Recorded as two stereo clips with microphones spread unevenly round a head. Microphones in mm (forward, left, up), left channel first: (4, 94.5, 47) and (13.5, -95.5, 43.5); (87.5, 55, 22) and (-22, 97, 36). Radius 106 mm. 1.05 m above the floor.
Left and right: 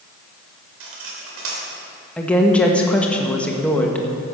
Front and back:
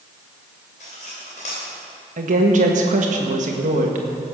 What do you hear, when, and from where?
0.8 s cutlery clinking: 70° right, 2.5 m
2.2 s a woman speaking: 175° left, 1.5 m